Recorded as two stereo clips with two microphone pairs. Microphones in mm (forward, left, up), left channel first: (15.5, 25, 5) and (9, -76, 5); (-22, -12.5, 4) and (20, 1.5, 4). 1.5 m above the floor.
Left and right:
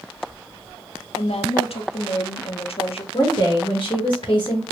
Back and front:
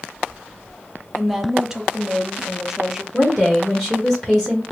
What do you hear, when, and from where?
1.1 s a woman speaking: 100° left, 0.6 m
3.1 s a woman speaking: 120° left, 1.4 m